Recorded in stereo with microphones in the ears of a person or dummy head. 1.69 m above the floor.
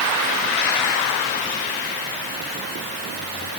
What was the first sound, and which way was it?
Only background noise.